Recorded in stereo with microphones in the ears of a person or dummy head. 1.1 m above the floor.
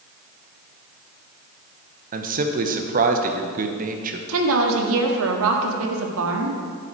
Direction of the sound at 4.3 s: 75° right (ahead or behind).